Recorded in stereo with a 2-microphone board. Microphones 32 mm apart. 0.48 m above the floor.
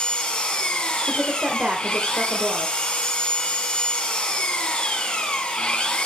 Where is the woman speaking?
40° right (ahead or behind), 1.4 m.